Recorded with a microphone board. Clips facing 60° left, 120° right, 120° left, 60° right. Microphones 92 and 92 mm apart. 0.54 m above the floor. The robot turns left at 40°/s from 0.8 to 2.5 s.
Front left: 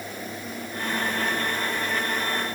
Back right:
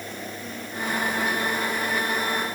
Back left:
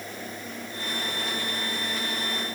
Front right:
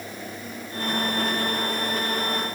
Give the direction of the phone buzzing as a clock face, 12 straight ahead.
No phone buzzing in this recording.